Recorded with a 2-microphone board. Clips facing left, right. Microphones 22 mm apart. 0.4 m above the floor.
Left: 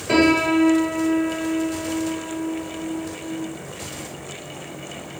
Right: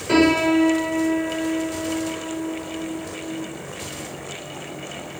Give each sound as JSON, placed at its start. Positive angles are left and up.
{"t": 0.1, "sound": "a piano", "side_deg": -5, "distance_m": 1.6}